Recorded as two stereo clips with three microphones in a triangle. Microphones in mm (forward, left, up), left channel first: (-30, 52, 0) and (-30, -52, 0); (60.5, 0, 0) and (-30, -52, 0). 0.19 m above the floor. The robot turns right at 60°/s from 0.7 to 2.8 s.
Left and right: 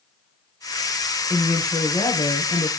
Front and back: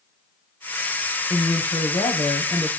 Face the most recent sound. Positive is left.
turn(degrees=75)